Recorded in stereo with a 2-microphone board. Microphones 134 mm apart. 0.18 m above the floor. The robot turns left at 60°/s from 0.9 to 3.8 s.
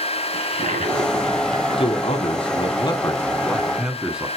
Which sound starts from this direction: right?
A toilet flushing, at 0.3 s.